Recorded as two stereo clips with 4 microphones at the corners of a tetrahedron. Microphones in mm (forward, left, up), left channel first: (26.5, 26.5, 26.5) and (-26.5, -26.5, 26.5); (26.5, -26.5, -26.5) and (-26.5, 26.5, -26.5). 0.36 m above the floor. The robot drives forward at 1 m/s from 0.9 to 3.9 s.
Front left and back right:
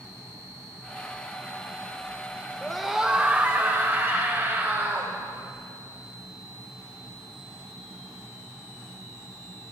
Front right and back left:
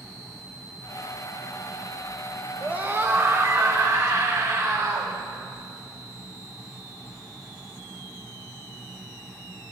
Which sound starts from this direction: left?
A scream, at 2.6 s.